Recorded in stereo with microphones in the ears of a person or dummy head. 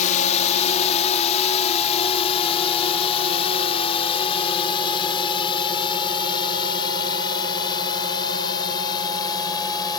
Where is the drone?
40° left (ahead or behind); by 10.0 s 25° left (ahead or behind).